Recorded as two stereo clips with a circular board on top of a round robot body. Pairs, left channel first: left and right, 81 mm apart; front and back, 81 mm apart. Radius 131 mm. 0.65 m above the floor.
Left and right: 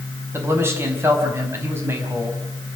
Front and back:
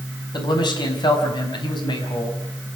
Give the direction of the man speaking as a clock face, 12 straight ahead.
1 o'clock.